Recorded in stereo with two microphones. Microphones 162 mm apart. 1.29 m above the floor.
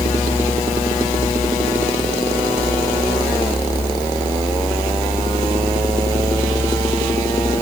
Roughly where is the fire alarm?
No fire alarm in this recording.